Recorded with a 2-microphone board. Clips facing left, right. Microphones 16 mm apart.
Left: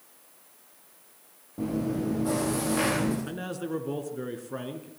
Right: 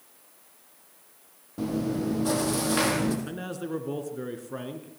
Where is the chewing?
80° right, 5 m.